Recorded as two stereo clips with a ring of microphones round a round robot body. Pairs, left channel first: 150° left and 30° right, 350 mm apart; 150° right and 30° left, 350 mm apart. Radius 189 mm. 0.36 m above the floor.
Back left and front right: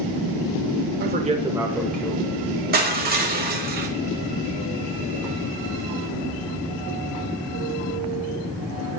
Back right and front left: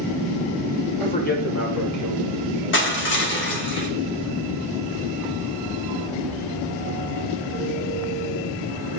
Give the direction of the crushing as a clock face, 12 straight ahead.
3 o'clock.